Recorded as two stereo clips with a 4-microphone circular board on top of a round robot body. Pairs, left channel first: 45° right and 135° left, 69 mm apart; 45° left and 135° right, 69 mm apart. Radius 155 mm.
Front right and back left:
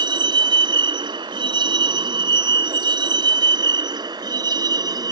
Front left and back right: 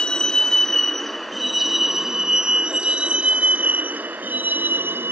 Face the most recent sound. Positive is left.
turn(degrees=165)